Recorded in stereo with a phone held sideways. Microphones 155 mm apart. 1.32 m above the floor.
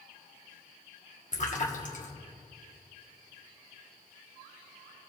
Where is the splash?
50° left (ahead or behind), 1.6 m.